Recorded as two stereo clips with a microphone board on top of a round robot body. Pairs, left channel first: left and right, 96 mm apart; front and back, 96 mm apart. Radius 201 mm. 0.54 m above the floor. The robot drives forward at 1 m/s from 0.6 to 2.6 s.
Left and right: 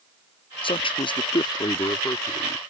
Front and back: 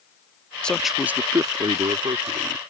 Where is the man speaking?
80° left; by 2.6 s 155° left.